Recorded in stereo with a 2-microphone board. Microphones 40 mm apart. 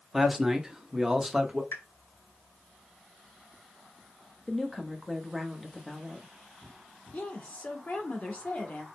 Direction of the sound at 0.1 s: 10° right (ahead or behind).